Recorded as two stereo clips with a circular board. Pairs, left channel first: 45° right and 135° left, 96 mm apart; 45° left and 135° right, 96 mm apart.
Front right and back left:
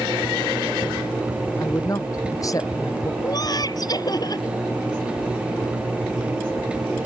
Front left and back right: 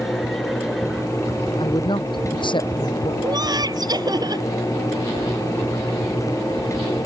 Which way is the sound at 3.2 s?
90° right.